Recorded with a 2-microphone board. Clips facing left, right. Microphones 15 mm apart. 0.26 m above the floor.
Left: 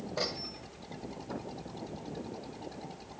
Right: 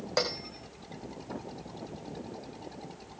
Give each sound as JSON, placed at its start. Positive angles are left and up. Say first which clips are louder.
{"t": 0.2, "sound": "a bell", "louder": "right 5 dB", "side_deg": -85, "distance_m": 5.0}